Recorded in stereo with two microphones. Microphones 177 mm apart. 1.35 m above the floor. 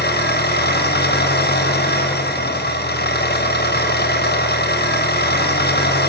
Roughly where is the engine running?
Left.